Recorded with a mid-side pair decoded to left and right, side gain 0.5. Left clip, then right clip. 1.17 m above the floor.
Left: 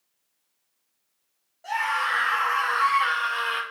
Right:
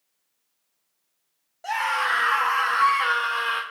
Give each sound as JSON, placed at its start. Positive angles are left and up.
{"t": 1.6, "sound": "a scream", "azimuth_deg": -55, "distance_m": 2.5}